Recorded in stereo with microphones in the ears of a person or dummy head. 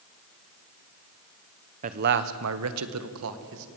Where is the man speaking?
40° right (ahead or behind), 1.1 m; by 3.7 s 70° right (ahead or behind), 2 m.